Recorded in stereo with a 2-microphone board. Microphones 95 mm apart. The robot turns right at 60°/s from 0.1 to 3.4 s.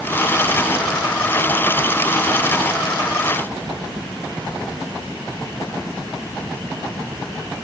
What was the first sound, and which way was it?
Only background noise.